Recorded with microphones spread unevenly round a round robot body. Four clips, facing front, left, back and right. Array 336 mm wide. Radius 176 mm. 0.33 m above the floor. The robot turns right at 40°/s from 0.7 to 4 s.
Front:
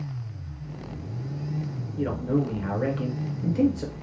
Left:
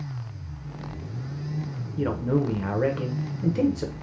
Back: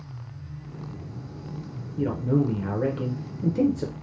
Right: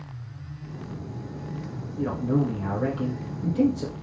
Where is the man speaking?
70° left, 0.9 m; by 3.9 s 150° left, 0.9 m.